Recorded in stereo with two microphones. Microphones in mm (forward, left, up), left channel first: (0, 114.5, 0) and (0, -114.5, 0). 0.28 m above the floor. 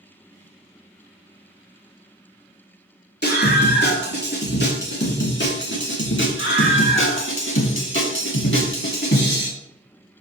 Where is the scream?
45° left (ahead or behind), 4 m; by 9.5 s 50° left (ahead or behind), 2 m.